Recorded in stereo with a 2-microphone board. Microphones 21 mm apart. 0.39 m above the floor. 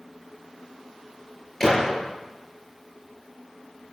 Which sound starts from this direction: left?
A gunshot, at 1.6 s.